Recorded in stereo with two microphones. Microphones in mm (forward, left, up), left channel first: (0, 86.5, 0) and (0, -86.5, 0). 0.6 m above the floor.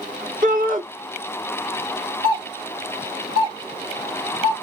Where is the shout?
50° right (ahead or behind), 1.3 m.